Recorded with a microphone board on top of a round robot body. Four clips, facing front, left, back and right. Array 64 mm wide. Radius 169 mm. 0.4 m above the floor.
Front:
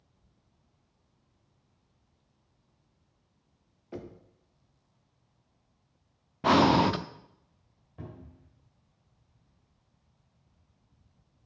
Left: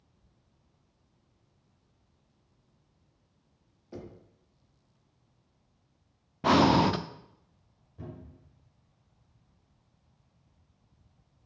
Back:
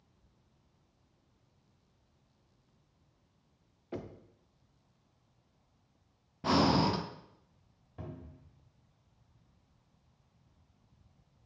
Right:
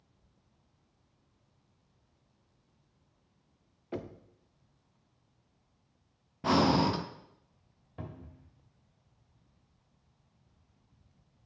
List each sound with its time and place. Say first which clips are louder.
3.9 s knocking: right 4 dB, even; 100° right, 0.9 m
6.4 s breathing: left 4 dB, front 6 dB; 30° left, 0.7 m
8.0 s a cupboard door: left 1 dB, even; 95° right, 1.8 m